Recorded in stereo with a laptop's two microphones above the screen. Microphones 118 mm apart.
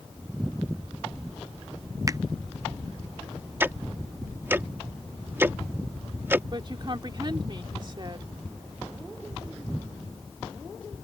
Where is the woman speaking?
40° right (ahead or behind).